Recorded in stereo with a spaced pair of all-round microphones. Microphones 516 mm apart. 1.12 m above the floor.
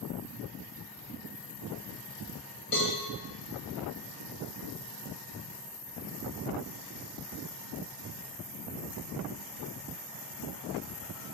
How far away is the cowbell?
About 1.2 m.